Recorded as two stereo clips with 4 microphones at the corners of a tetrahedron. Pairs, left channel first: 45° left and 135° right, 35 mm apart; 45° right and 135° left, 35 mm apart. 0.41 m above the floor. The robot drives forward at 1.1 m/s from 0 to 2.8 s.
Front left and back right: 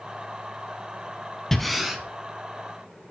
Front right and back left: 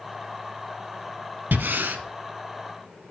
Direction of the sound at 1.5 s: 125° left.